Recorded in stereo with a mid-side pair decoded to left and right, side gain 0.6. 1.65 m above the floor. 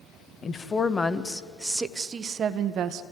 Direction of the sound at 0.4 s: 30° left.